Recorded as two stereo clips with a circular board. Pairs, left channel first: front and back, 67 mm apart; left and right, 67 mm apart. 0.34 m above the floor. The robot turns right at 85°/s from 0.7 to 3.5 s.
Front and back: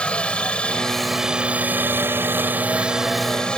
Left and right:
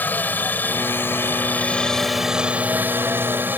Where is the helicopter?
60° left; by 3.6 s 65° right.